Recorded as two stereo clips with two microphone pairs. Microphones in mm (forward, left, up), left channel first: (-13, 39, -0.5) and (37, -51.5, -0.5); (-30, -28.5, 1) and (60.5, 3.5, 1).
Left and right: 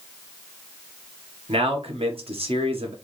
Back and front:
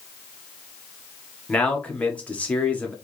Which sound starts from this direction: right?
A man speaking, at 1.5 s.